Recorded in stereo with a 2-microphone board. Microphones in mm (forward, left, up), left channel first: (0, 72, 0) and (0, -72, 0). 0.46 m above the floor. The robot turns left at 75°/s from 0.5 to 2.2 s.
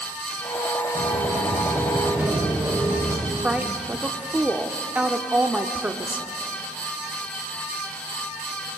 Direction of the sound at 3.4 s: 10° right (ahead or behind).